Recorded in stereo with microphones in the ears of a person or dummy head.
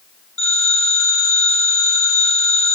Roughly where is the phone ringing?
Centre.